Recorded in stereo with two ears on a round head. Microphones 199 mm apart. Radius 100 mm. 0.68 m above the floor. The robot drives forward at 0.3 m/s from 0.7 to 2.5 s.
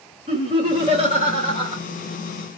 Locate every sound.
0.3 s laughter: 25° right (ahead or behind), 1.2 m